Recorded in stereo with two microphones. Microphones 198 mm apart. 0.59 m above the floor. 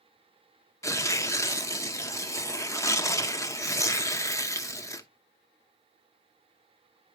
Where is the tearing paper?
15° left (ahead or behind), 0.8 m.